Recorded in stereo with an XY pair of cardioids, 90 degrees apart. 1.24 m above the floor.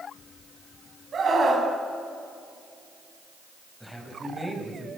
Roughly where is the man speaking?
Ahead.